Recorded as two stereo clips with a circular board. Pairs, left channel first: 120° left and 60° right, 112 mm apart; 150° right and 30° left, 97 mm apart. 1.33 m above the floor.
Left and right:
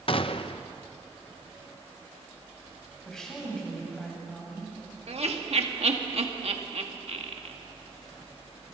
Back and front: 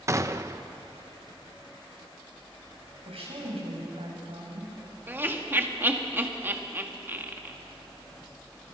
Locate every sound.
0.1 s a gunshot: 85° left, 0.7 m
3.0 s a woman speaking: 35° left, 6.5 m
5.1 s laughter: 40° right, 2 m